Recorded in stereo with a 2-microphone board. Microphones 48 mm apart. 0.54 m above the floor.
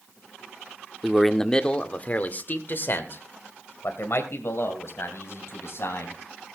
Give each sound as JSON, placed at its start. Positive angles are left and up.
{"t": 1.0, "sound": "a man speaking", "side_deg": -5, "distance_m": 0.9}